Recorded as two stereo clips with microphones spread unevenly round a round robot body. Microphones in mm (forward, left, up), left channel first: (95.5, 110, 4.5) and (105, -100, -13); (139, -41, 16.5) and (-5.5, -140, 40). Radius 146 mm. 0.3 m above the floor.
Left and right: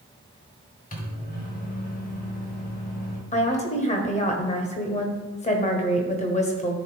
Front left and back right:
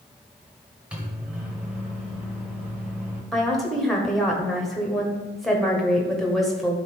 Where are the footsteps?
I don't hear footsteps.